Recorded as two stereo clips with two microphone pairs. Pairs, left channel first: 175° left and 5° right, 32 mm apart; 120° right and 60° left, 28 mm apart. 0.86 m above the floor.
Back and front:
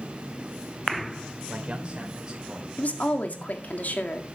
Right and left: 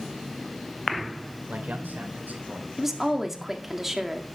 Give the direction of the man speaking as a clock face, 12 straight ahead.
10 o'clock.